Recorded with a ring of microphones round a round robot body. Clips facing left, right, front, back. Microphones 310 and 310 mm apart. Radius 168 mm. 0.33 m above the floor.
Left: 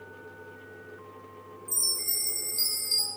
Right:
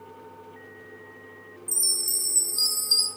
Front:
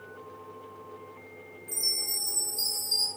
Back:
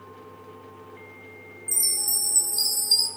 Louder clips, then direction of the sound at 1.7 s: Right 2 dB, even; 150° right.